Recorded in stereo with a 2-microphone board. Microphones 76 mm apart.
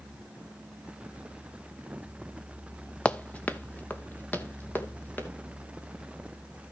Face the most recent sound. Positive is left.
turn(degrees=20)  # may be behind; listen again after turning